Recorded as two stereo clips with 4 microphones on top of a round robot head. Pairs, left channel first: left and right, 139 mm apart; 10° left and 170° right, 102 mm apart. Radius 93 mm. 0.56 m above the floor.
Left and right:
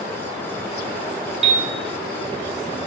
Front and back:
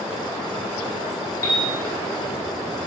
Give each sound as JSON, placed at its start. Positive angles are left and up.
{"t": 1.4, "sound": "a piano", "azimuth_deg": -50, "distance_m": 0.7}